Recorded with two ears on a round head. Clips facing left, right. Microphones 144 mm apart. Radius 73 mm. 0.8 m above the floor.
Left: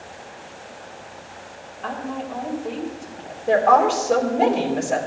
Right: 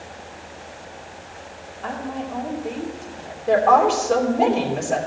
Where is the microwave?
No microwave in this recording.